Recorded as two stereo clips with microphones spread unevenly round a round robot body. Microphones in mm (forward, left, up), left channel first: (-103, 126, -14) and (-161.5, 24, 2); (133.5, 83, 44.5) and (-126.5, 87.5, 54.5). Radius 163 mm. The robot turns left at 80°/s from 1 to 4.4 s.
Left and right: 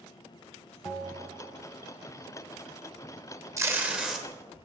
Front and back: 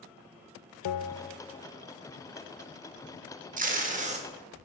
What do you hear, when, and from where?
0.8 s a bell: 20° right, 0.5 m; by 1.6 s 65° right, 0.5 m
3.6 s tape being pulled: 170° right, 1.5 m; by 4.2 s 135° left, 1.5 m